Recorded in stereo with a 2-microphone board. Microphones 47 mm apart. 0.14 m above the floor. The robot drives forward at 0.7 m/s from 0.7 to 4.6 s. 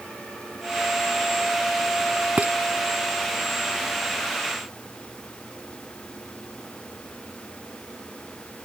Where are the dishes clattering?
35° right (ahead or behind).